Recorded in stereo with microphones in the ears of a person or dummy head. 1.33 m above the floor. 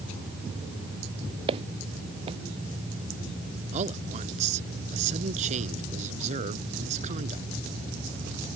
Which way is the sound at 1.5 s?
30° right (ahead or behind).